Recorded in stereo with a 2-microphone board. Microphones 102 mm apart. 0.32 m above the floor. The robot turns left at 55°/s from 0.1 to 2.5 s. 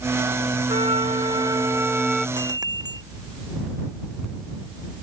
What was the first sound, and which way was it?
A flute, 95° right.